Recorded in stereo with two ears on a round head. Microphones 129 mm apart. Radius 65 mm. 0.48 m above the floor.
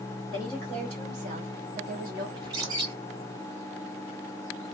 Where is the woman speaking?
30° right (ahead or behind), 1.5 m; by 2.3 s 65° right (ahead or behind), 2 m.